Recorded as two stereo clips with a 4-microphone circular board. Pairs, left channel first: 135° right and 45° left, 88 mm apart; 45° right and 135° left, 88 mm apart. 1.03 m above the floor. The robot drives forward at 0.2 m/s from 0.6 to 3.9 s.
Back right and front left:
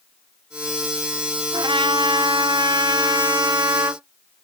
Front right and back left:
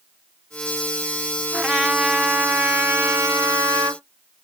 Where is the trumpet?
50° left, 0.7 m; by 4.0 s 95° left, 0.6 m.